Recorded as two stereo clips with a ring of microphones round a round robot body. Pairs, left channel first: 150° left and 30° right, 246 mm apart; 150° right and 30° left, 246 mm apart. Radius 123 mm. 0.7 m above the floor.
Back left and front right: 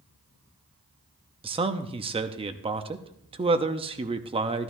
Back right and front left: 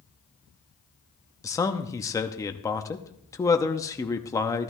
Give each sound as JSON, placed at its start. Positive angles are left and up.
{"t": 1.4, "sound": "a man speaking", "azimuth_deg": -80, "distance_m": 0.8}